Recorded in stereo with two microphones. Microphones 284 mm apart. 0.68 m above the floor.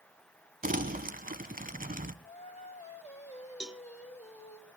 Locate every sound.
0.6 s crumpling: 30° right (ahead or behind), 1.1 m
2.2 s singing: 25° left (ahead or behind), 3.5 m
3.6 s a cowbell: 5° right (ahead or behind), 0.7 m